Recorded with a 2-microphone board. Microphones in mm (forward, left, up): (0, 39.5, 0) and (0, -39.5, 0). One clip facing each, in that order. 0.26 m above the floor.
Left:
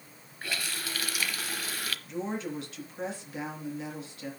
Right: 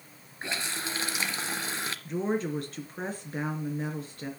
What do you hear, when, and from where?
0.4 s a running tap: 25° right (ahead or behind), 0.8 m
2.0 s a woman speaking: 45° right (ahead or behind), 3.5 m